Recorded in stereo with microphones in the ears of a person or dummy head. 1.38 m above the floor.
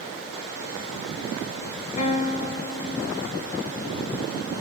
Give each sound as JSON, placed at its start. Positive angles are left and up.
{"t": 2.0, "sound": "a guitar", "side_deg": 40, "distance_m": 0.6}